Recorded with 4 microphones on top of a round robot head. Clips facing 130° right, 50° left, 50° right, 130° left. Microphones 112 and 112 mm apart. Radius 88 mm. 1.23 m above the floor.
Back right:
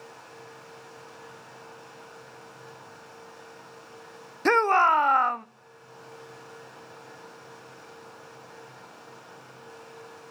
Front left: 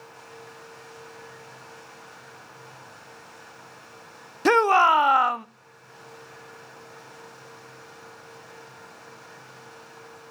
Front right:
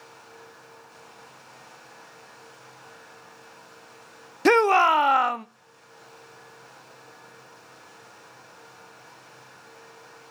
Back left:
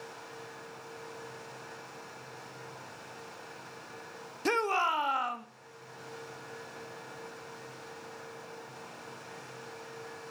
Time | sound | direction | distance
4.5 | a shout | 30° right | 0.5 m